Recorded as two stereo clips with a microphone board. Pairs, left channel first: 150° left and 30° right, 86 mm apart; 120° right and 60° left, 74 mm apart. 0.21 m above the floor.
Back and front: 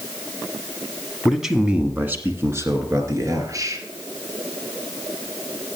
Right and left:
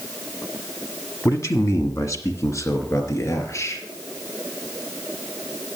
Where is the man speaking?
120° right, 1.3 m; by 3.8 s 75° right, 3.5 m.